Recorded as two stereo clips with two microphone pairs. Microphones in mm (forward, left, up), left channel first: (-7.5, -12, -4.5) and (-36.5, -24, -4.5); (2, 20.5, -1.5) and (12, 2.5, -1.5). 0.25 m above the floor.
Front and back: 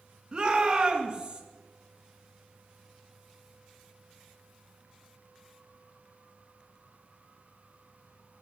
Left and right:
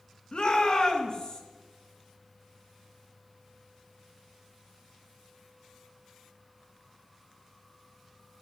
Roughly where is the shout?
Behind left.